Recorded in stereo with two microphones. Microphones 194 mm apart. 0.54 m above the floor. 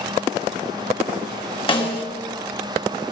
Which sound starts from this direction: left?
A snare drum, at 1.7 s.